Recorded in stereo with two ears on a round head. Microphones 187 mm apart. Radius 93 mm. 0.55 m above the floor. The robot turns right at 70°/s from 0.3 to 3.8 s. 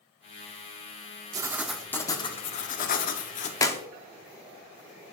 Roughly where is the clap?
Centre.